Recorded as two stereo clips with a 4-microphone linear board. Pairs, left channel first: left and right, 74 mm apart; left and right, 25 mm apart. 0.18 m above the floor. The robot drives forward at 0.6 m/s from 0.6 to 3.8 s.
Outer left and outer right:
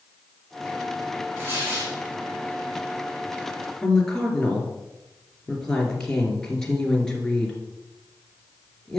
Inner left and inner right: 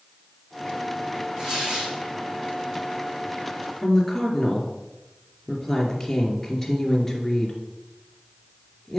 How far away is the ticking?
I don't hear ticking.